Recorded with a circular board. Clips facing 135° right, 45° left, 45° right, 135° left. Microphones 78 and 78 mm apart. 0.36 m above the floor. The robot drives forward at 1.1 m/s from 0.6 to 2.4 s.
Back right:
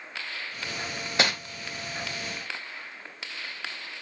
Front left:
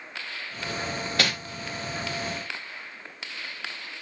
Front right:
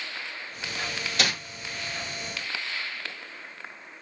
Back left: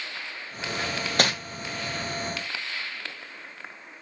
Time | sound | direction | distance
1.2 | crumpling | 160° left | 1.3 m